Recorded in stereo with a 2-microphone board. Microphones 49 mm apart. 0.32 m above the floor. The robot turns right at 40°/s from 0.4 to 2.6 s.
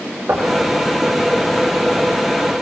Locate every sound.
0.3 s knocking: 60° right (ahead or behind), 6.5 m; by 0.6 s 70° right (ahead or behind), 6.5 m